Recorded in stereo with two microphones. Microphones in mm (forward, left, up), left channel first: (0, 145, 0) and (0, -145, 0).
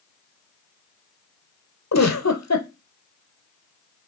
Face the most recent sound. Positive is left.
turn(degrees=75)  # may be behind; listen again after turning